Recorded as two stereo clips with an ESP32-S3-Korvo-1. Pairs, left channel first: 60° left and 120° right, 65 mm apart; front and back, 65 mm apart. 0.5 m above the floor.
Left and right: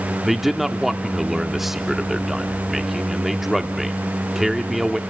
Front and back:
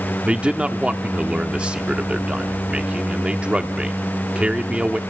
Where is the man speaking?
160° left, 0.7 m.